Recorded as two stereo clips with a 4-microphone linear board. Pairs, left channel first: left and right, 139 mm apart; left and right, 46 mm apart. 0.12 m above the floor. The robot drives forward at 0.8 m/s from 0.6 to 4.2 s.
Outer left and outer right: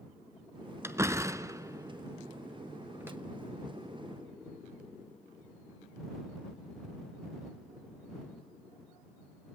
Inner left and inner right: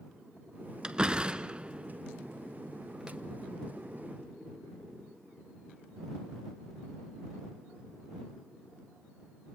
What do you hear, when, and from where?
0.8 s a door slam: 20° right (ahead or behind), 1.3 m; by 3.2 s 15° right (ahead or behind), 1.6 m